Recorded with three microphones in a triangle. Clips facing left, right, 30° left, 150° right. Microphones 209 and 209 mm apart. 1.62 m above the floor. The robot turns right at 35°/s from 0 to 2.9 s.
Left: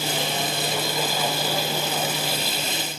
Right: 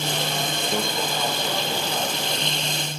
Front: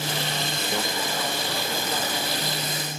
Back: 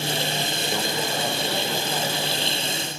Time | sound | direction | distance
0.7 | a microwave | 60° right | 1.5 m